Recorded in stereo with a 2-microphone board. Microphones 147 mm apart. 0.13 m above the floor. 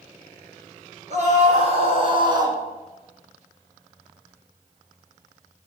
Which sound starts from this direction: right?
A scream, at 1.1 s.